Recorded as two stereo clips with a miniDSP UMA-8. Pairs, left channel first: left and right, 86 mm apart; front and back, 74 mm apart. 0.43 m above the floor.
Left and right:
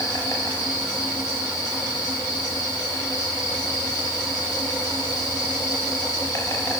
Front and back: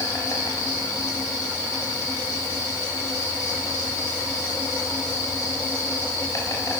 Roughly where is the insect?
Ahead left.